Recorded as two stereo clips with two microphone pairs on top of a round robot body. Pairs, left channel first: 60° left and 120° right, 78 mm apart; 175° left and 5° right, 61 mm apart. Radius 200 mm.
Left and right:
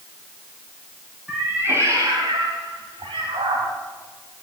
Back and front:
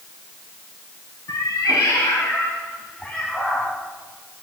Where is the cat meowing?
155° left, 1.5 m; by 3.7 s 90° right, 1.7 m.